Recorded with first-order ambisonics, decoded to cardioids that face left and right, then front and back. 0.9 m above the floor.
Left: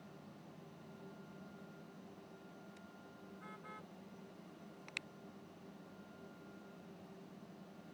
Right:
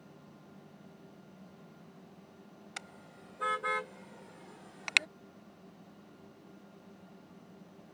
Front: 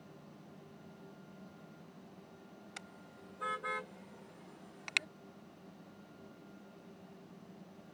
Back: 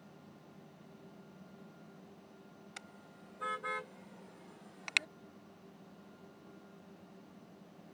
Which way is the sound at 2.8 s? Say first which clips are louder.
Right 10 dB, front 1 dB; 90° right.